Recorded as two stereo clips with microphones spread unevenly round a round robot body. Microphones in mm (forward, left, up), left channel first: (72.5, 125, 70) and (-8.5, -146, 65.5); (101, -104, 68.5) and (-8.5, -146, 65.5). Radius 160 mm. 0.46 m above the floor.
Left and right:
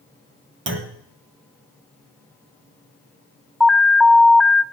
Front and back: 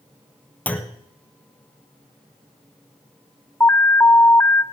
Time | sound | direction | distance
0.7 | a clunk | 55° right | 1.4 m
3.6 | an alarm | 15° right | 0.7 m